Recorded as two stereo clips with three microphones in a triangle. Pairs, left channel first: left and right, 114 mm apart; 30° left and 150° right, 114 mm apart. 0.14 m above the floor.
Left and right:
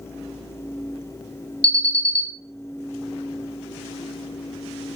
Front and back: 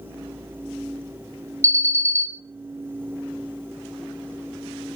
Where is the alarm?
100° left, 2.5 m.